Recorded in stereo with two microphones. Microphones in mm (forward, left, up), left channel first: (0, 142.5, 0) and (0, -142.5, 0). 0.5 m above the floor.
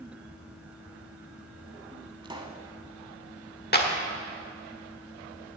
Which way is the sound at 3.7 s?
35° left (ahead or behind).